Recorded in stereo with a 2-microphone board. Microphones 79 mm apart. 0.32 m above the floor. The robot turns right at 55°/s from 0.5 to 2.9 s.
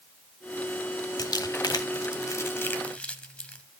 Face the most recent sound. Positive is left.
turn(degrees=15)  # may be behind; listen again after turning